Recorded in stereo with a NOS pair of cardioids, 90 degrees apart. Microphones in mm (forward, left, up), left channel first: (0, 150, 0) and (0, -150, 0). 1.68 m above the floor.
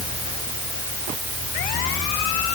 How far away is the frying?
No frying in this recording.